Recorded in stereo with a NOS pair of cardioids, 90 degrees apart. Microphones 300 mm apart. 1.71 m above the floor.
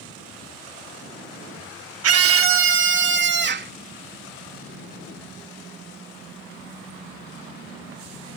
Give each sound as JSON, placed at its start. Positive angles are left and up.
{"t": 2.0, "sound": "a scream", "azimuth_deg": -55}